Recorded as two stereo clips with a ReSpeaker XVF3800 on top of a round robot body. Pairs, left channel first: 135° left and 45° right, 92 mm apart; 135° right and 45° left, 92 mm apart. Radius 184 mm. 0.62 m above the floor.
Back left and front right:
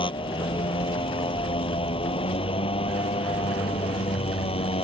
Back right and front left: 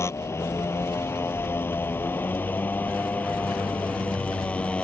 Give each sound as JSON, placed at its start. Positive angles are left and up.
{"t": 0.0, "sound": "a motorcycle", "azimuth_deg": 165}